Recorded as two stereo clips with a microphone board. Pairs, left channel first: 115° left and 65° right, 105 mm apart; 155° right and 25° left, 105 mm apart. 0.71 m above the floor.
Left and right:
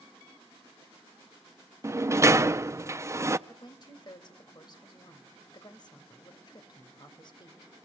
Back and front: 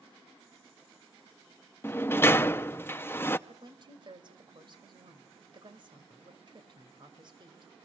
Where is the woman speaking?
65° left, 3 m.